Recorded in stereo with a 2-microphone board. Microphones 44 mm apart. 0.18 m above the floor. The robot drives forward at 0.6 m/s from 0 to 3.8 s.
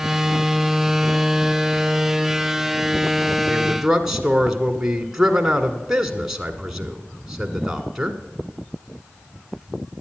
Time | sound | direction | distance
3.5 | a man speaking | 10° right (ahead or behind) | 1.2 m